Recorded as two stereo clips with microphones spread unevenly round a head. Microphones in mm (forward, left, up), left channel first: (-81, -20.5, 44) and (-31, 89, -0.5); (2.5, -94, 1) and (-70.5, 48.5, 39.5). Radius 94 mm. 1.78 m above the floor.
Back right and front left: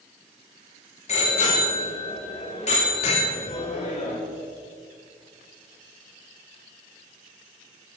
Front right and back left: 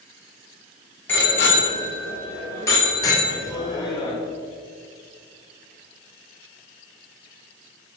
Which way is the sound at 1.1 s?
145° right.